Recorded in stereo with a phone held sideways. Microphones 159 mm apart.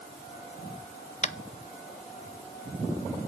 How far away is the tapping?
About 0.6 m.